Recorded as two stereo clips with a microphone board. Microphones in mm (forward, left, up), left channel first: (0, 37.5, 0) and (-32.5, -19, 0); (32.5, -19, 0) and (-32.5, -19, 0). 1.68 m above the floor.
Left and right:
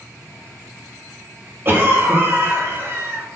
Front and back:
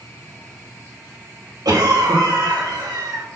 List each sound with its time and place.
1.6 s a cough: 170° right, 2.5 m